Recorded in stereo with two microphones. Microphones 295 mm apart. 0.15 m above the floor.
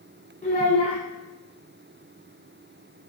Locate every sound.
0.4 s a child speaking: 25° left (ahead or behind), 0.8 m